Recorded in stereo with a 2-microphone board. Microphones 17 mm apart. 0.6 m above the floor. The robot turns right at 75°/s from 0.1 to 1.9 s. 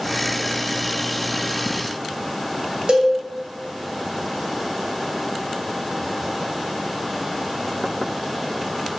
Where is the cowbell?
65° right (ahead or behind), 0.6 m.